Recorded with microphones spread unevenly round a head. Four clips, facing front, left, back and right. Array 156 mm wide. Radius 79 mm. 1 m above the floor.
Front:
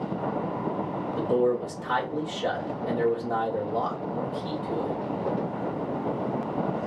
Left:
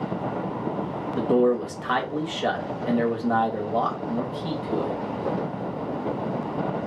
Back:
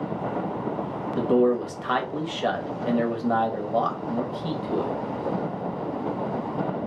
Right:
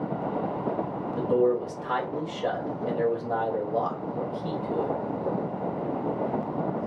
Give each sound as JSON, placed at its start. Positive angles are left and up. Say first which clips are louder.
{"t": 1.2, "sound": "a man speaking", "louder": "left 3 dB, back 4 dB", "azimuth_deg": 145, "distance_m": 1.4}